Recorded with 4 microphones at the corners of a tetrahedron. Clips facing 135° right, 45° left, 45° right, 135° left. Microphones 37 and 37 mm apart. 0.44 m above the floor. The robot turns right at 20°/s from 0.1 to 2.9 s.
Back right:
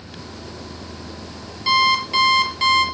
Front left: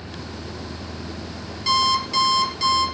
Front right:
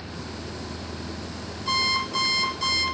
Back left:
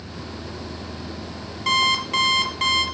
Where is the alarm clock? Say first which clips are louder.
Back right 3 dB, back left 5 dB; 145° left, 4.5 m; by 2.9 s 165° left, 4.5 m.